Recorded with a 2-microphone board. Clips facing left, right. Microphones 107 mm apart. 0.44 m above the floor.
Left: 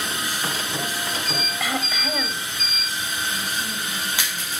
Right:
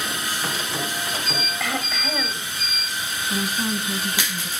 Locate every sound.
1.6 s throat clearing: 5° left (ahead or behind), 2 m
3.3 s a woman speaking: 75° right (ahead or behind), 3.5 m